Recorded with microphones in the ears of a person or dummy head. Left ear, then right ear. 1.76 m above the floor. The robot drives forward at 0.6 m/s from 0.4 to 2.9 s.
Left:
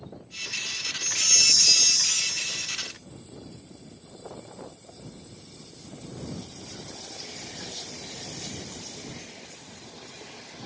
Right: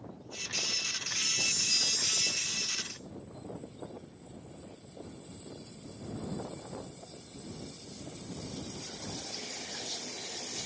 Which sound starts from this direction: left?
A chime, at 1.0 s.